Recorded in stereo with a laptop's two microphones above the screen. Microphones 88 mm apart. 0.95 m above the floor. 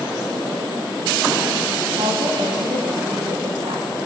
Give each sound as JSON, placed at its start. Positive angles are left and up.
{"t": 2.0, "sound": "a woman speaking", "side_deg": -80, "distance_m": 7.5}